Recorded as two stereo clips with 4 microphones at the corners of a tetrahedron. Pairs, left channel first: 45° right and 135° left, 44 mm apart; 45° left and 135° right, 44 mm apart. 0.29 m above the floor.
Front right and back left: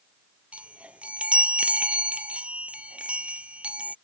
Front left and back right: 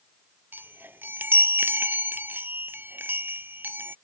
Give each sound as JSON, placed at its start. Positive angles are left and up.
{"t": 0.5, "sound": "a chime", "azimuth_deg": -165}